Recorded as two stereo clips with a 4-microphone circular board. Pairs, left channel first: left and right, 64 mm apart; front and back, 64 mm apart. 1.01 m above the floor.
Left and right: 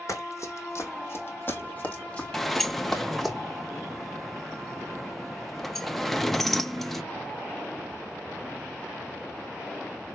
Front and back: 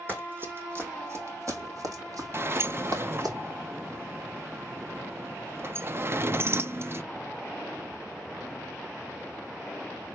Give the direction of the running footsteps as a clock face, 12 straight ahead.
8 o'clock.